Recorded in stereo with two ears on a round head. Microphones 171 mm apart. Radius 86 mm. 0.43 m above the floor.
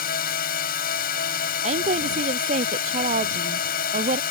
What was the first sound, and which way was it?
A drone, 50° left (ahead or behind).